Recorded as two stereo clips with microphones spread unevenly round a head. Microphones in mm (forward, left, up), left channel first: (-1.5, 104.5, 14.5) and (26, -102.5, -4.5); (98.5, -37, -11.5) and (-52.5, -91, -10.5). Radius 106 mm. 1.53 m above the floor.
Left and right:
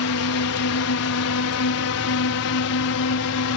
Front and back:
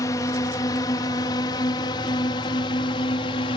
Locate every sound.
0.0 s a drone: 95° left; by 3.6 s 85° left